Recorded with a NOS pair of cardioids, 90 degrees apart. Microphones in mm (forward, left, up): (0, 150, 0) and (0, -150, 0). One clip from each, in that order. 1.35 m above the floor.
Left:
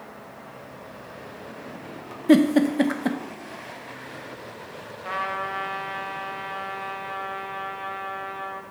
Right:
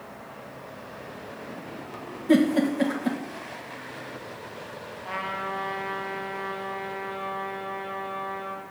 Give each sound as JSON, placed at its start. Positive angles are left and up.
{"t": 2.3, "sound": "a giggle", "azimuth_deg": 45, "distance_m": 1.9}
{"t": 5.0, "sound": "a trumpet", "azimuth_deg": 55, "distance_m": 3.0}